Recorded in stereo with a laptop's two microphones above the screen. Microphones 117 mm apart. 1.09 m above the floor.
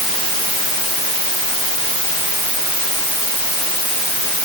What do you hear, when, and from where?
Only background noise.